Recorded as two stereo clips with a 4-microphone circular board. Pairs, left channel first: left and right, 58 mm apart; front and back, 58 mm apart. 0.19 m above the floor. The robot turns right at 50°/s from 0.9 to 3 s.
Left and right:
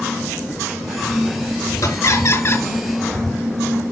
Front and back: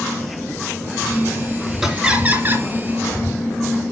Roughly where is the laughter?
Left.